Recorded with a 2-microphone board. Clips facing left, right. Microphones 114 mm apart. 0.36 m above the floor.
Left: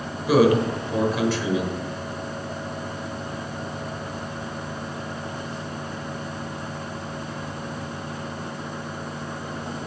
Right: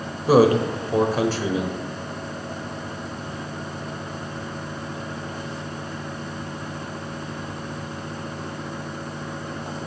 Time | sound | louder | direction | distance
0.3 | a man speaking | right 2 dB | 40° right (ahead or behind) | 1.0 m